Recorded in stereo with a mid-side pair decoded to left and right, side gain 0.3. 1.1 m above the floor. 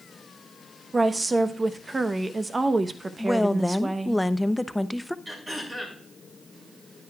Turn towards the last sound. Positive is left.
turn(degrees=-35)